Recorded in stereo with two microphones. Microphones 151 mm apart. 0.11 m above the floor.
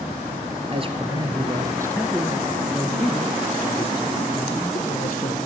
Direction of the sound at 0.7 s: 40° right (ahead or behind).